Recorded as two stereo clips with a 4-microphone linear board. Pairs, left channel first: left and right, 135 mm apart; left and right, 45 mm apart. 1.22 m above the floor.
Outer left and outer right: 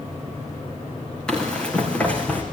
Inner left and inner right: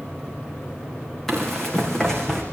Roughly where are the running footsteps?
Centre.